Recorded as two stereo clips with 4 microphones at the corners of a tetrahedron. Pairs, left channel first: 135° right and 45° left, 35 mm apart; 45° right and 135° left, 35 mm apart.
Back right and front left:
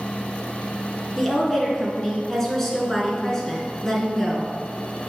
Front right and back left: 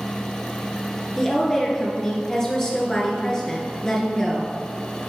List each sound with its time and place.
1.2 s a woman speaking: 75° right, 1.4 m